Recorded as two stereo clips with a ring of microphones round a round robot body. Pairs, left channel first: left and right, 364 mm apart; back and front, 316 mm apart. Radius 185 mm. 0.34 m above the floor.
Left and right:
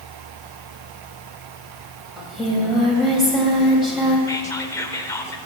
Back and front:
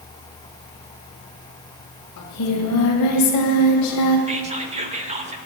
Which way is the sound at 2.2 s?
Straight behind.